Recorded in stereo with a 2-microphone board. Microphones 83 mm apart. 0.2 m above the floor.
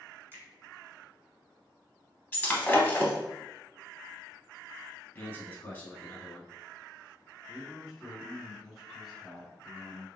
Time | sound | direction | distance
0.3 | a finger snap | 30° right (ahead or behind) | 1.2 m
2.3 | breaking glass | 20° left (ahead or behind) | 0.7 m
5.2 | a man speaking | 20° left (ahead or behind) | 1.1 m
7.5 | a man speaking | centre (ahead or behind) | 1.5 m